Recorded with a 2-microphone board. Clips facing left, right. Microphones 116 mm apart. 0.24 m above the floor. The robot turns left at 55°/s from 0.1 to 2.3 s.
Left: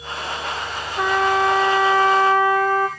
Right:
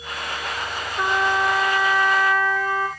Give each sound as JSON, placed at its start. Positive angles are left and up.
{"t": 1.0, "sound": "a trumpet", "azimuth_deg": 135, "distance_m": 3.0}